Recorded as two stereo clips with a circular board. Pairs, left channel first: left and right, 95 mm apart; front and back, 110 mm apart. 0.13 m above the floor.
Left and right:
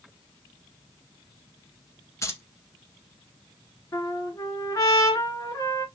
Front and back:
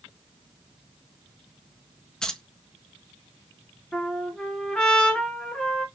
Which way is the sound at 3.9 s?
75° left.